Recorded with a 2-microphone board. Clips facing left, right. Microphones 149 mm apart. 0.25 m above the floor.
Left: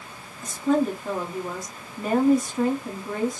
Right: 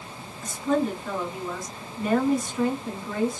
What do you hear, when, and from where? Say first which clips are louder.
0.4 s a woman speaking: left 2 dB; 45° left (ahead or behind), 1.7 m